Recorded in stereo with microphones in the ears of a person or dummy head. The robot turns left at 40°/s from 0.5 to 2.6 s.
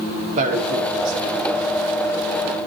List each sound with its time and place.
0.4 s a man speaking: 40° right (ahead or behind), 5 m; by 1.8 s 85° right, 5 m